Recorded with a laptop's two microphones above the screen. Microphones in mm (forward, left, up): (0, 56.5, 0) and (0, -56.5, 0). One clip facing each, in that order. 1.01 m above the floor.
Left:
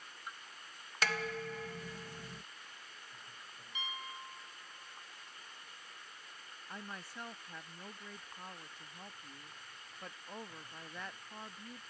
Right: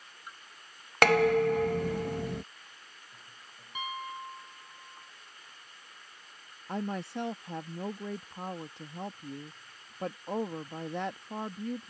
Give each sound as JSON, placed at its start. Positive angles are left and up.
{"t": 1.0, "sound": "dishes clattering", "side_deg": -65}
{"t": 3.8, "sound": "a piano", "side_deg": -50}
{"t": 6.7, "sound": "a woman speaking", "side_deg": -70}